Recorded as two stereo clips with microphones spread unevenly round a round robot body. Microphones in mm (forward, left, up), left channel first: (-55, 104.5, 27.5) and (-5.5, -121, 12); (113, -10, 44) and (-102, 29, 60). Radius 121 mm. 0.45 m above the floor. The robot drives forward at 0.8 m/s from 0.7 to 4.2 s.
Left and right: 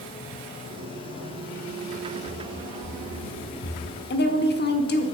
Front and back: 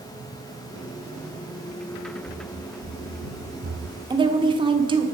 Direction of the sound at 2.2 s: 135° left.